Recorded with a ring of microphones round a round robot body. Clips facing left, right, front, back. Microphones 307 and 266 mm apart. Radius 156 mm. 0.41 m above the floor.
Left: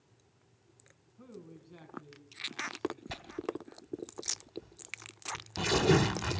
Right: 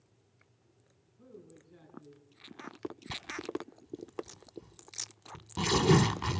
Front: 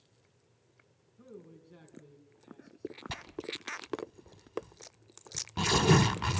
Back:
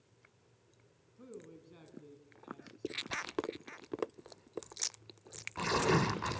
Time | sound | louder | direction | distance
1.2 | a man speaking | left 3 dB, even | 95° left | 5 m
3.1 | tearing paper | left 1 dB, back 3 dB | 20° right | 1.3 m